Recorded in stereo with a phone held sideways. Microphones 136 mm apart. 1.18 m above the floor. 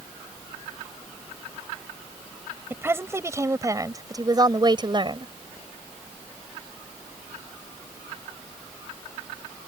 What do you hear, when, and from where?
2.7 s a woman speaking: 15° right (ahead or behind); by 5.3 s 40° right (ahead or behind)